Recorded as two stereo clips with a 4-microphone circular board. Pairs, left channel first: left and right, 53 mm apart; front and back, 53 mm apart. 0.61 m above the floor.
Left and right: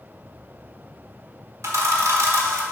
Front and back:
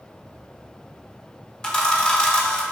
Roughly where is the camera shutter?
Right.